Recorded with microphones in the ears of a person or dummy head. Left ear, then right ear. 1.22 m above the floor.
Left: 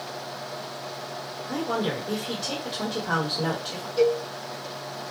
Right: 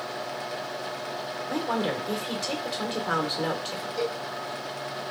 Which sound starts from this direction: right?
A woman speaking, at 1.5 s.